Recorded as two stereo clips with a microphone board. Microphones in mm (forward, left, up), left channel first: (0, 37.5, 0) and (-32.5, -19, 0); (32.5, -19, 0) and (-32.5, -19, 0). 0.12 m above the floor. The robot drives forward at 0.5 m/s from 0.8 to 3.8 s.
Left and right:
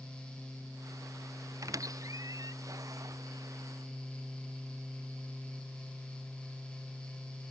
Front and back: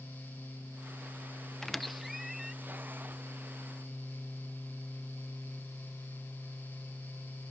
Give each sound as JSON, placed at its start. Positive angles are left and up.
{"t": 1.6, "sound": "a squeak", "azimuth_deg": -85}